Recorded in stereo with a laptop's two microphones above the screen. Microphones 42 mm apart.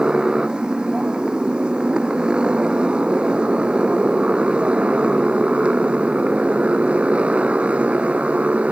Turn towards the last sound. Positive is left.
turn(degrees=-35)  # may be behind; listen again after turning